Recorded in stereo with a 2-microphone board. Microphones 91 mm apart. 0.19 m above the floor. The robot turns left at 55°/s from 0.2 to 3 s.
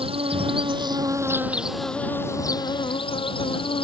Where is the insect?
95° right; by 3.8 s 115° left.